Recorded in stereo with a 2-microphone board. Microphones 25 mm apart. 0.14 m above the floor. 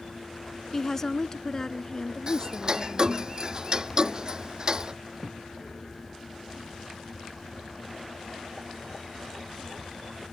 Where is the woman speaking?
20° left (ahead or behind); by 3.3 s 35° left (ahead or behind).